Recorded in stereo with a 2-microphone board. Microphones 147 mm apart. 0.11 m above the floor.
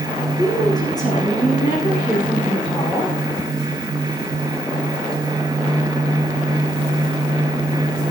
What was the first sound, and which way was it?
A woman speaking, 30° left (ahead or behind).